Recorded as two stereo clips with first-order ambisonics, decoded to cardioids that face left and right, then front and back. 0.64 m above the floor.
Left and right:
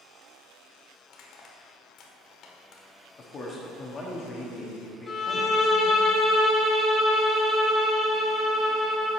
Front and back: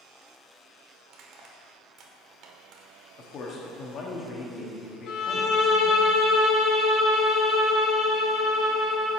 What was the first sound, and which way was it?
Crushing, 135° left.